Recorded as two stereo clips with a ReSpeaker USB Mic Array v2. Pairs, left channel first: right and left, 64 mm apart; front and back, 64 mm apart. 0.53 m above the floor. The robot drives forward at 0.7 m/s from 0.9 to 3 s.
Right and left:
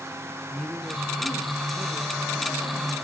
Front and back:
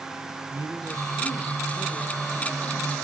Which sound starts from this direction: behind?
A woman speaking, at 0.5 s.